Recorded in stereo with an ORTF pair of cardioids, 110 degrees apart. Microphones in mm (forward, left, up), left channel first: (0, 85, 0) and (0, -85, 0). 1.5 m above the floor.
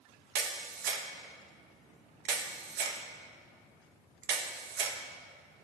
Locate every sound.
0.3 s a camera shutter: 70° right, 0.8 m